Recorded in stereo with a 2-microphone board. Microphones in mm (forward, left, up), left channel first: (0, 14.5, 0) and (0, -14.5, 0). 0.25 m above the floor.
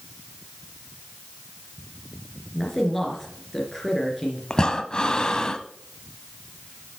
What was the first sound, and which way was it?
A man speaking, 10° left (ahead or behind).